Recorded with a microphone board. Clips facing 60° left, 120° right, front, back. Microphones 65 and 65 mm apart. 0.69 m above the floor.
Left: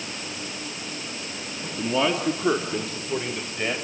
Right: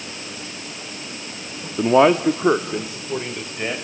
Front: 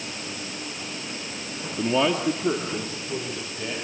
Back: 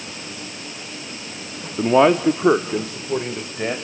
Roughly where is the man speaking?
Behind right.